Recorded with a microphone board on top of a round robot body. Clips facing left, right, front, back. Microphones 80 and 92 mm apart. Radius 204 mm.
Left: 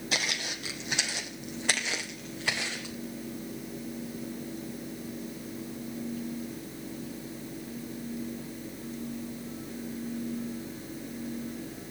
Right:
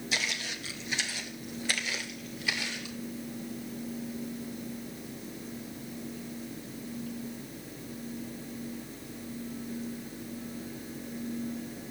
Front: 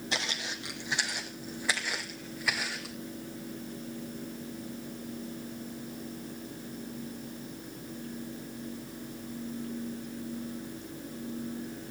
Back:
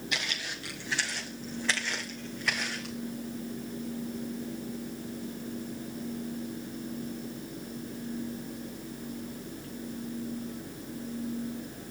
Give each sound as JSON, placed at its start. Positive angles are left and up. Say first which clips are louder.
{"t": 0.1, "sound": "footsteps", "louder": "left 2 dB, front 2 dB", "azimuth_deg": 60, "distance_m": 1.4}